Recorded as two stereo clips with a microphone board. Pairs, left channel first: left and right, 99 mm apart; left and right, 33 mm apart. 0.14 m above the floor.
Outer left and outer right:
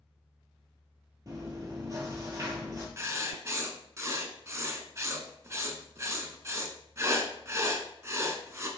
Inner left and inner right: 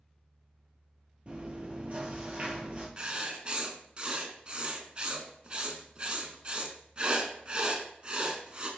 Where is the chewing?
35° right (ahead or behind), 2 m.